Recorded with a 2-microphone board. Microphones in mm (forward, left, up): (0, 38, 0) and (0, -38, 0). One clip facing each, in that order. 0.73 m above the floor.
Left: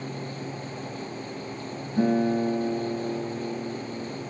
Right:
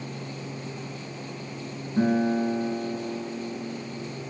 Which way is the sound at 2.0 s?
35° right (ahead or behind).